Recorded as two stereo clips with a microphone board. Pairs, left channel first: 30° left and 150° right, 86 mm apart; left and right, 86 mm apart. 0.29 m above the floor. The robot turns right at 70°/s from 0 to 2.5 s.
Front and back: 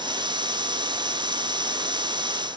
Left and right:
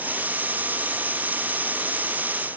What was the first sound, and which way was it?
Only background noise.